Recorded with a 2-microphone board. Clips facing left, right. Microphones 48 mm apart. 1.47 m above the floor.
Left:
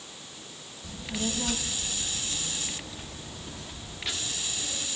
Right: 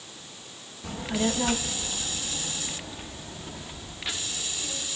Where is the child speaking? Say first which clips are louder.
Right 6 dB; 45° right (ahead or behind), 1.4 m; by 4.9 s 5° right (ahead or behind), 3.5 m.